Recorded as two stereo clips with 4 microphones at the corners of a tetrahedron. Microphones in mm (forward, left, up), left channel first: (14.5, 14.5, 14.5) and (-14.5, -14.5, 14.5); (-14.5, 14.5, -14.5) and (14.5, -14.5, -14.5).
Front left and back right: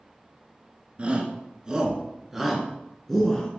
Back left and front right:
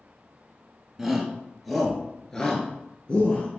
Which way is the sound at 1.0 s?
125° right.